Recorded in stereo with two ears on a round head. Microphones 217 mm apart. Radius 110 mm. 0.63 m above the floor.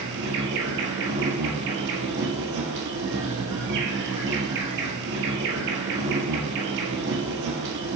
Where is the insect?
55° right (ahead or behind), 1.2 m.